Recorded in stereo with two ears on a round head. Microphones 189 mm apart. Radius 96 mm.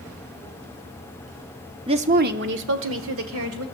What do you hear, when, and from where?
1.9 s a woman speaking: 25° right (ahead or behind), 0.8 m; by 3.6 s 75° right (ahead or behind), 2.5 m